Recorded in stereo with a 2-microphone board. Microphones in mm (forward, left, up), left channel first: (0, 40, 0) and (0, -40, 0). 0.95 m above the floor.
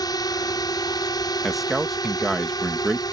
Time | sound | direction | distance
0.0 | a drone | 55° left (ahead or behind) | ?
1.4 | a man speaking | centre (ahead or behind) | ?